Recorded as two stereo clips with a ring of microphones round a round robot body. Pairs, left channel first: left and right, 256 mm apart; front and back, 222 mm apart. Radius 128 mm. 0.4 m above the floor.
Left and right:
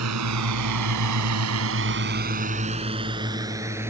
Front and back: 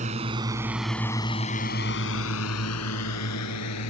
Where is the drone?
115° right; by 3.9 s 10° right.